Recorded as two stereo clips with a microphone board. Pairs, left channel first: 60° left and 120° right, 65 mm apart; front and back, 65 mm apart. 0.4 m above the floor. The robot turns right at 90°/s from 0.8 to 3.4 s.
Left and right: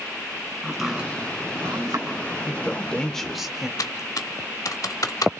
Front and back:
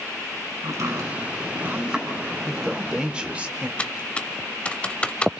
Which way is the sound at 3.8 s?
70° left.